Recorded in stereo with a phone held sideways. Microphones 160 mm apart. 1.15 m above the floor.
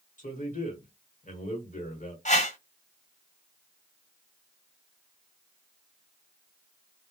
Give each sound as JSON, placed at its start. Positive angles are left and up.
{"t": 0.2, "sound": "a man speaking", "side_deg": 50, "distance_m": 1.2}
{"t": 2.2, "sound": "a whoosh", "side_deg": 50, "distance_m": 1.5}